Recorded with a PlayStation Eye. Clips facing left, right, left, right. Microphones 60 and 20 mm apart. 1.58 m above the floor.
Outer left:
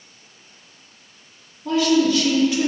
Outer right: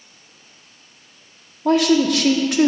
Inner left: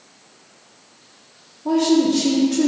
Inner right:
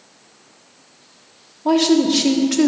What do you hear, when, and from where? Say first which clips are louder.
1.6 s a woman speaking: outer right 2 dB, inner right 2 dB; 70° right (ahead or behind), 1.1 m